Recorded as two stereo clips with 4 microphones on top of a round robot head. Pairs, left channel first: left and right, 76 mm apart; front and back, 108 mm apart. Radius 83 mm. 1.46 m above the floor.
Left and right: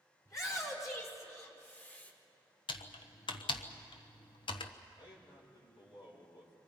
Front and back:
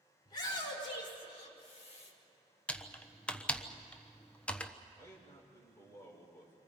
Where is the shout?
50° left, 6.5 m; by 2.1 s 25° left, 6 m.